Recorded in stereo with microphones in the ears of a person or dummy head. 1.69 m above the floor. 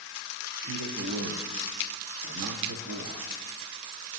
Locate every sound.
0.6 s a man speaking: 70° right (ahead or behind), 1.1 m